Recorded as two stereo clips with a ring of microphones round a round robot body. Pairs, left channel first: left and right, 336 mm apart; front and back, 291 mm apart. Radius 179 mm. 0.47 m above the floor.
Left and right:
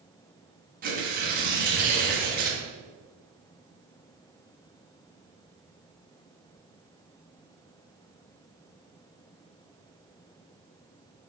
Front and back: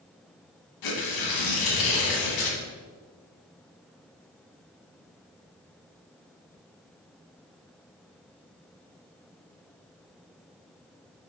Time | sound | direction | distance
0.8 | tearing paper | 25° right | 1.3 m